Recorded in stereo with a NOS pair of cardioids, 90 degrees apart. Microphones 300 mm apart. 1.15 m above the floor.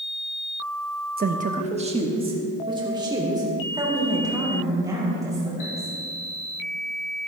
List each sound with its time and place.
1.2 s a woman speaking: 30° right, 1.0 m; by 5.9 s 10° right, 6.5 m